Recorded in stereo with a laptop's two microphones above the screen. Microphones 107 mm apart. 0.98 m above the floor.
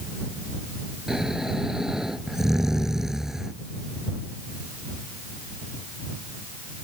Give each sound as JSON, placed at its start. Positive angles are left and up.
{"t": 1.1, "sound": "snoring", "side_deg": -5}